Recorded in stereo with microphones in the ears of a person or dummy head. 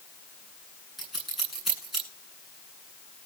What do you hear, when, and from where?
1.0 s scissors: 5° right (ahead or behind), 10 m